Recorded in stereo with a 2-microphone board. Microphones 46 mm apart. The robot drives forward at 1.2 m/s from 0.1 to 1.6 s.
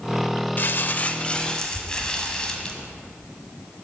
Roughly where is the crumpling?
Left.